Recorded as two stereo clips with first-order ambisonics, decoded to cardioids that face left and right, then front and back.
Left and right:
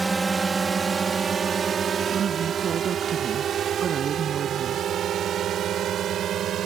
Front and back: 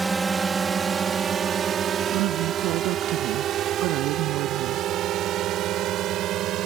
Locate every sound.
0.0 s a drone: 135° right; by 6.7 s 140° right
2.1 s a woman speaking: 150° right